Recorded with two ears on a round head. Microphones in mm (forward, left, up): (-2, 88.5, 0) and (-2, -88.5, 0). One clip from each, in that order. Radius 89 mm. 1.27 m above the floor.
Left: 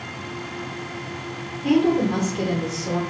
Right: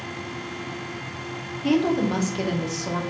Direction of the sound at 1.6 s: 35° right (ahead or behind).